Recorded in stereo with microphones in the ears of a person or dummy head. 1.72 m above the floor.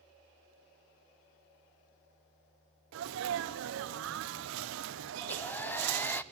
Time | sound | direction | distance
2.9 | a sneeze | 75° right (ahead or behind) | 1.3 m
5.2 | a hair dryer | 10° left (ahead or behind) | 0.6 m